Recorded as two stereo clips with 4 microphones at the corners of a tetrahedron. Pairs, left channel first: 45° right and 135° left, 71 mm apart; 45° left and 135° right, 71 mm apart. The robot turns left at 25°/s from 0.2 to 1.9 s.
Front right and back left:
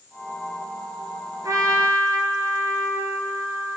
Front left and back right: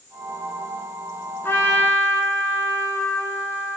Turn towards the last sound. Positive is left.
turn(degrees=90)